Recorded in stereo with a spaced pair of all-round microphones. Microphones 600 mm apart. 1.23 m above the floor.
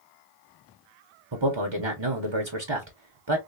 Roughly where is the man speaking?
Right.